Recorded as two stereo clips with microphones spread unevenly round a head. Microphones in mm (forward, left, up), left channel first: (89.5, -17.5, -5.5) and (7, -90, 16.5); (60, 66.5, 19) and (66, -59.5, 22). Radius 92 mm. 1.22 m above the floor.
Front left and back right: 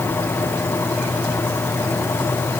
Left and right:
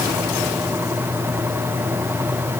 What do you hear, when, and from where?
Only background noise.